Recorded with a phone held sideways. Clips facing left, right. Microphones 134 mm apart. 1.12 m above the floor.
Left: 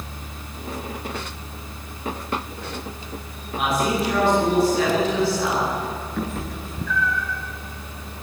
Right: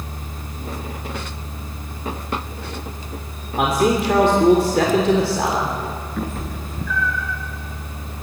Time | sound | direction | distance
0.0 | a fan | 45° right (ahead or behind) | 1.0 m
3.6 | a man speaking | 75° right (ahead or behind) | 3 m
6.2 | a cat meowing | centre (ahead or behind) | 3 m